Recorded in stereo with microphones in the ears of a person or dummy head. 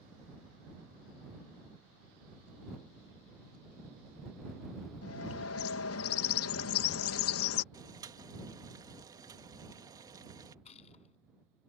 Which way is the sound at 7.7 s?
15° right (ahead or behind).